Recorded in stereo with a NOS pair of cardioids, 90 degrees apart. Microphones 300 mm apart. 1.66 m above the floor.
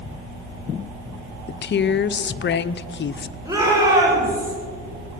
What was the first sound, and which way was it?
A woman speaking, 40° left.